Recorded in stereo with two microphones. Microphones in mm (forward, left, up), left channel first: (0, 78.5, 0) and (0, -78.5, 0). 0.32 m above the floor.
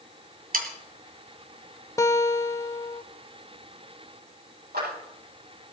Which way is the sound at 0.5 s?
60° right (ahead or behind).